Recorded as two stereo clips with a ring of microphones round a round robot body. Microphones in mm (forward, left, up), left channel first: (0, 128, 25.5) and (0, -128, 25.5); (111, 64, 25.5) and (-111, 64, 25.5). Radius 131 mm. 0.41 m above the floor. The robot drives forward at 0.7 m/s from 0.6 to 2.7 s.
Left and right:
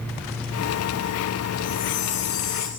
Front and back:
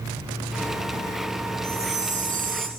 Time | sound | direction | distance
1.6 | a chime | 115° left | 2.5 m